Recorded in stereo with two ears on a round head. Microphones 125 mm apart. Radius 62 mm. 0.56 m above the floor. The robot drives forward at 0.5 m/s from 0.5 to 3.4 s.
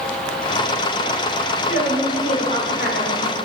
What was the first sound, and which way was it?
A woman speaking, 65° left (ahead or behind).